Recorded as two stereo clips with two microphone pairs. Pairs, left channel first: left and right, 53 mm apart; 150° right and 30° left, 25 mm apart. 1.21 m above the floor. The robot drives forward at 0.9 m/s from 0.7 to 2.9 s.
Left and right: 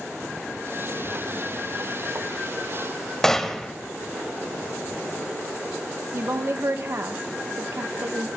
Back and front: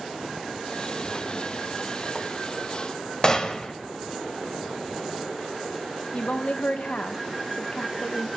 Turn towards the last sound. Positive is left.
turn(degrees=-125)